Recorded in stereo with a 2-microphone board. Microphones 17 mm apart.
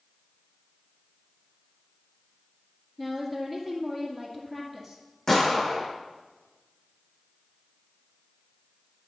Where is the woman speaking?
Centre (ahead or behind), 1.9 m.